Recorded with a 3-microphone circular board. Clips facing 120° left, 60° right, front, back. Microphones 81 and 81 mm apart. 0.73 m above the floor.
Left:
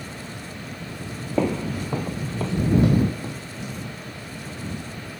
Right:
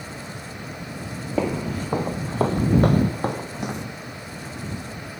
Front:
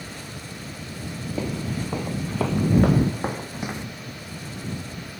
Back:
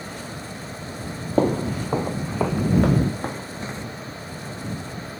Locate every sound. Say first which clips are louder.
1.4 s footsteps: left 1 dB, back 9 dB; 150° right; by 3.9 s 70° right